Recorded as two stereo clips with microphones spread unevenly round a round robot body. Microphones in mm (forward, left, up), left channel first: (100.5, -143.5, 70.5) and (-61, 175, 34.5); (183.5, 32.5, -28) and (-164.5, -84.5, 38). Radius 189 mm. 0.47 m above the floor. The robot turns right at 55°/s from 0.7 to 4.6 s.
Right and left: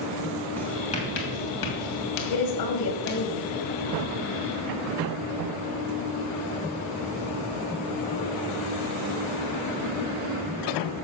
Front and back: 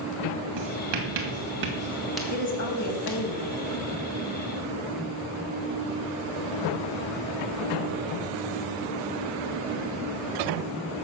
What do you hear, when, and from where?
0.6 s writing: 150° right, 2.5 m; by 3.3 s 5° right, 2.5 m
2.3 s a woman speaking: 45° right, 3 m; by 3.7 s 30° left, 3 m